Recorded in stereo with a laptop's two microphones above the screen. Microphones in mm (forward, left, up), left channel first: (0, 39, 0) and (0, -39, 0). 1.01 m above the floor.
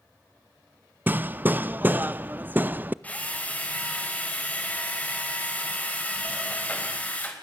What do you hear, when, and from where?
1.1 s hammering: 25° right (ahead or behind), 0.5 m
3.0 s a drill: 20° left (ahead or behind), 4.5 m